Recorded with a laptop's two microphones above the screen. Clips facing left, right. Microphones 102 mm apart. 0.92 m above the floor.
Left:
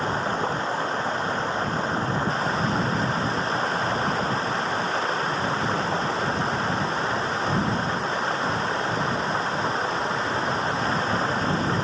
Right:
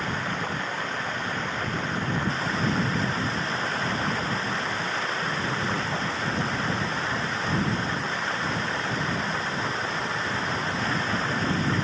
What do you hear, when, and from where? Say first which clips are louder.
0.0 s running water: left 5 dB; 30° left (ahead or behind)